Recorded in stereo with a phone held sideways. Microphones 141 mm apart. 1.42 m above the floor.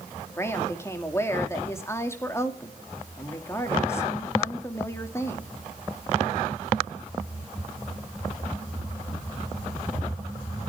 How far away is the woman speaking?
About 2.5 m.